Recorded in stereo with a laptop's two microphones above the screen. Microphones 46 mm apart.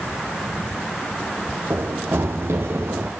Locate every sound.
1.7 s running footsteps: 70° right (ahead or behind), 2 m; by 3.1 s 65° right (ahead or behind), 3 m